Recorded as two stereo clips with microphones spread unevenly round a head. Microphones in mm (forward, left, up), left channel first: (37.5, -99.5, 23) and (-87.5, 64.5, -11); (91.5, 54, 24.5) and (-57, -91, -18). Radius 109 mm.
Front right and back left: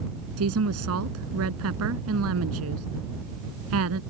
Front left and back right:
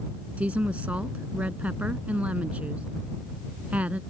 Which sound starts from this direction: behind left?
A woman speaking, at 0.4 s.